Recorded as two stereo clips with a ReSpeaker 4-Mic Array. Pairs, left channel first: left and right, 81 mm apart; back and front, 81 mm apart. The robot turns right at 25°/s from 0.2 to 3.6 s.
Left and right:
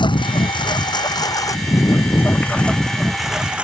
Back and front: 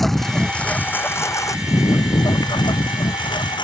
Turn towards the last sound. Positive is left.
turn(degrees=-165)